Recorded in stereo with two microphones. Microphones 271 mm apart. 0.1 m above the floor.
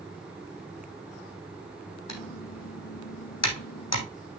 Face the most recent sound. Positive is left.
turn(degrees=70)  # may be behind; listen again after turning